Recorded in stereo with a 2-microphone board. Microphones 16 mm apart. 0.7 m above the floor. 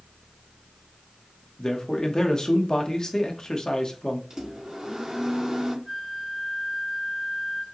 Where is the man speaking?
50° left (ahead or behind), 1.1 m.